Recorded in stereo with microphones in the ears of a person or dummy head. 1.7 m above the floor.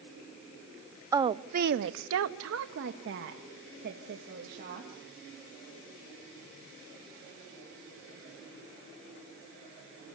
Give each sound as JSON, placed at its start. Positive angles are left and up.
{"t": 1.1, "sound": "a woman speaking", "side_deg": -15, "distance_m": 0.8}